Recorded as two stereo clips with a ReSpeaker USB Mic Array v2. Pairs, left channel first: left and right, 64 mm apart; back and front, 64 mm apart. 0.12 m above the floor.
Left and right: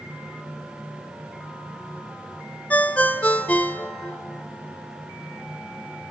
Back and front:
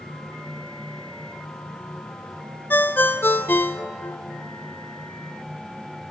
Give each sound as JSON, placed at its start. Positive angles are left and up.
{"t": 2.7, "sound": "a ringtone", "azimuth_deg": 145, "distance_m": 0.8}